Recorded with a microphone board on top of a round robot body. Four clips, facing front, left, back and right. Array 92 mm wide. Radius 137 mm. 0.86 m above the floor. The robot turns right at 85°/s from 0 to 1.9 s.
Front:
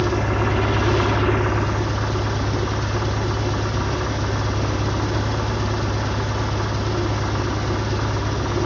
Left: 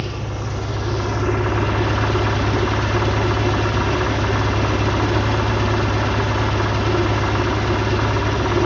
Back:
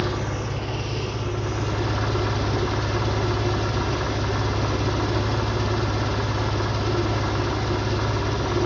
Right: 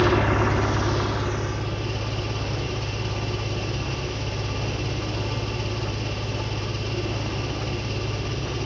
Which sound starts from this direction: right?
An engine running, at 0.0 s.